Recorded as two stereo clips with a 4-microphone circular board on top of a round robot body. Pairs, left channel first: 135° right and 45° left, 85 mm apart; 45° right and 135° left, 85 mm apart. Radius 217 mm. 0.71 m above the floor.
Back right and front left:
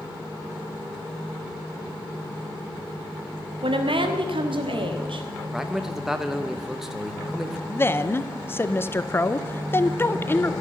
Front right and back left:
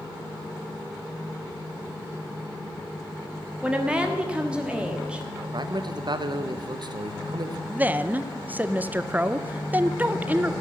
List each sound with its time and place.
3.6 s a woman speaking: 60° left, 1.4 m
5.5 s a man speaking: 130° left, 1.0 m
7.7 s a woman speaking: 170° right, 0.9 m